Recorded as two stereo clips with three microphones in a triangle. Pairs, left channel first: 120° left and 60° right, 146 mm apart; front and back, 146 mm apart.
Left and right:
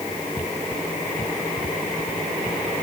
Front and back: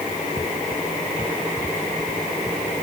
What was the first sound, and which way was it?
Only background noise.